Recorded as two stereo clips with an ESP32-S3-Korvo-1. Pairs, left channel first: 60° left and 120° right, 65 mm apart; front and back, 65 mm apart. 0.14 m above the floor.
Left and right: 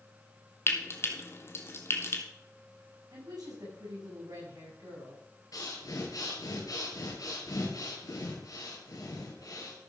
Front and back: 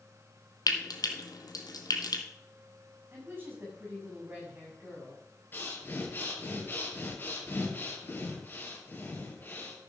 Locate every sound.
0.7 s frying: 10° left, 1.6 m
3.1 s a woman speaking: 125° right, 7.5 m
5.5 s breathing: 50° left, 3 m